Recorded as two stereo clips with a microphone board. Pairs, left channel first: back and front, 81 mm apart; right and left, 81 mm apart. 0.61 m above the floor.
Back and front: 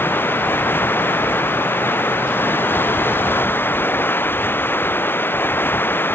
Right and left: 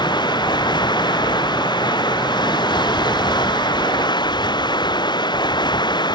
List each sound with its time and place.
0.0 s running water: 115° right